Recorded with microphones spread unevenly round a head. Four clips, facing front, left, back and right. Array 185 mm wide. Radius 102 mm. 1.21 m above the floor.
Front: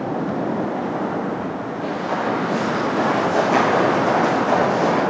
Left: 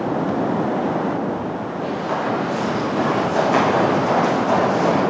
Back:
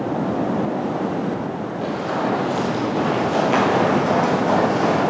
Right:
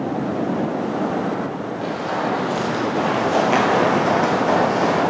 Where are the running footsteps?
175° right, 2 m; by 5.0 s 100° right, 1.2 m.